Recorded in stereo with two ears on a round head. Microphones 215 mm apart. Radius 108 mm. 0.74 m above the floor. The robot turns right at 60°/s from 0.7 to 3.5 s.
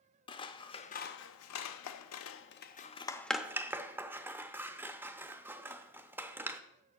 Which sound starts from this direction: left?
Scissors, at 0.3 s.